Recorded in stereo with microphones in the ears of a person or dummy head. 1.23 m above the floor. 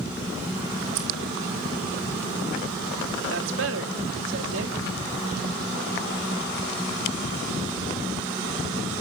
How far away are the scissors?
About 3 m.